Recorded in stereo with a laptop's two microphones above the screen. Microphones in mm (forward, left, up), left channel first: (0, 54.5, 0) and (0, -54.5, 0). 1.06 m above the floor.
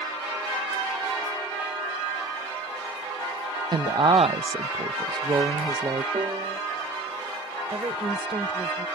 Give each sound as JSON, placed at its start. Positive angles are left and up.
{"t": 3.7, "sound": "a woman speaking", "side_deg": -40}
{"t": 6.1, "sound": "a piano", "side_deg": -50}
{"t": 7.7, "sound": "a woman speaking", "side_deg": -50}